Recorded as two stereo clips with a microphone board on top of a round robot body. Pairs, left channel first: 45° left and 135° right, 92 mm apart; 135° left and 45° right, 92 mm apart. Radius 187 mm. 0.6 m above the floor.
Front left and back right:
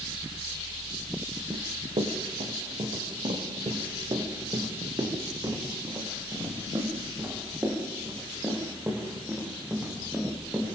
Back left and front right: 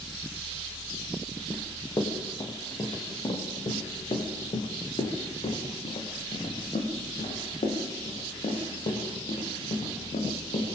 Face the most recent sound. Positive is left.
turn(degrees=145)